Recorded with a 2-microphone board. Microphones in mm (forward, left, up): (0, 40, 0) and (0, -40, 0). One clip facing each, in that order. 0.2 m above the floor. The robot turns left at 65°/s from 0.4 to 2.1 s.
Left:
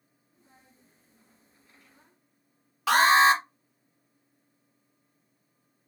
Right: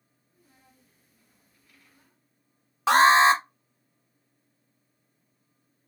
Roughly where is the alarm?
Right.